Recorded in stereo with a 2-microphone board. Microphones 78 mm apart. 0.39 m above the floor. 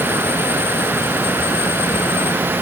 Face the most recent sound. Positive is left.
No sound to turn to.